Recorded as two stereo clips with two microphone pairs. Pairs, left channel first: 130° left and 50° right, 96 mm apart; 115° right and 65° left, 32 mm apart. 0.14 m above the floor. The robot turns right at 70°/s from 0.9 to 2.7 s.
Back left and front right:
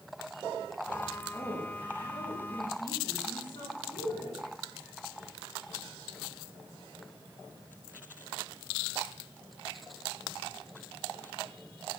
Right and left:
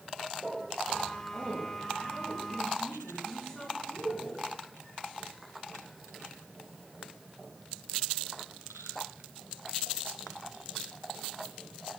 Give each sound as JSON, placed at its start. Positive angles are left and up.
{"t": 1.3, "sound": "a woman speaking", "azimuth_deg": 70, "distance_m": 9.0}